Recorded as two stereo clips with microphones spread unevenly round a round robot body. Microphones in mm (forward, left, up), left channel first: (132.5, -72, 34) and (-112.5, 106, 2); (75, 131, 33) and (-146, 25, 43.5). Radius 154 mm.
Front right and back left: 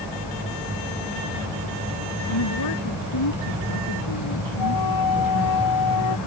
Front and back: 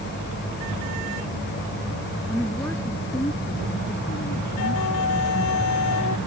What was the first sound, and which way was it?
A woman speaking, 65° right.